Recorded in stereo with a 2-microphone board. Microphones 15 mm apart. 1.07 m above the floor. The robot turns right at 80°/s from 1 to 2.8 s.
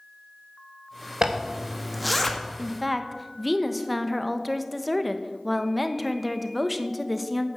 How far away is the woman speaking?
About 1.1 m.